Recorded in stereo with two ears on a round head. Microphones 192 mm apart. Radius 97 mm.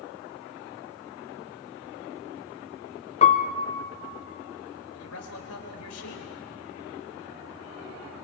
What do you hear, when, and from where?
3.2 s a piano: 30° left (ahead or behind), 0.8 m
4.9 s a man speaking: 85° left, 3.5 m